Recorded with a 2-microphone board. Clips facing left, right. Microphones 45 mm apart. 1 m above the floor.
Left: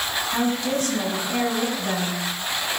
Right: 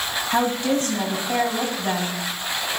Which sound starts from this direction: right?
A woman speaking, at 0.3 s.